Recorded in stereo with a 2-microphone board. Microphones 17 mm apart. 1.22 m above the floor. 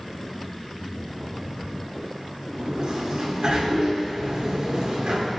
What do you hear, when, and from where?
2.5 s a sliding door: 55° right (ahead or behind), 4.5 m